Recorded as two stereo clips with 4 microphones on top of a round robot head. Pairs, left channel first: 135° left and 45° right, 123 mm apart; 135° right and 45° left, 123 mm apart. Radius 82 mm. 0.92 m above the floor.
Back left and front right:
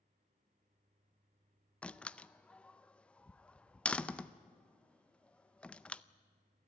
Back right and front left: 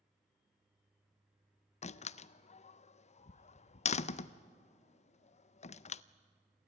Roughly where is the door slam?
Behind right.